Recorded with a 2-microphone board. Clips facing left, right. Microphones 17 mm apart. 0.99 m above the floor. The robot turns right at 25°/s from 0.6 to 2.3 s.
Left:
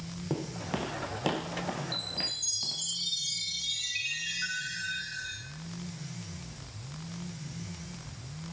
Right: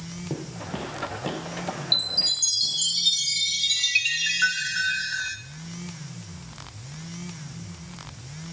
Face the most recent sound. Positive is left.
turn(degrees=-75)  # may be behind; listen again after turning